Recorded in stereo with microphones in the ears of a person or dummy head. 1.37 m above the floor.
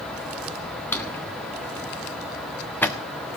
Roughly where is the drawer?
Centre.